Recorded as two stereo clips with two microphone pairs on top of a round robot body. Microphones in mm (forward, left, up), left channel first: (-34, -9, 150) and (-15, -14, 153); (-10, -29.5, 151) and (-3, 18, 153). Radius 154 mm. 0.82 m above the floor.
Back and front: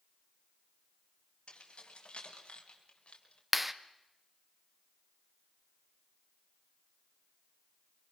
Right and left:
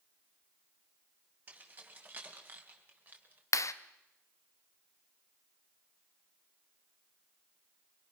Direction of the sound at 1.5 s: 130° left.